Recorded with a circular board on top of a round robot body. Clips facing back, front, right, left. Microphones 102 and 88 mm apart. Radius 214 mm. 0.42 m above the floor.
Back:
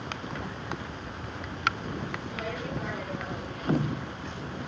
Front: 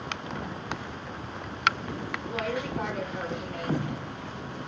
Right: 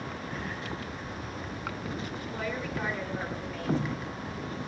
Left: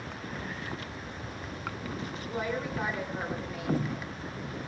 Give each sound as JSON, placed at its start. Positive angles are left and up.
{"t": 2.2, "sound": "a woman speaking", "azimuth_deg": 25, "distance_m": 7.0}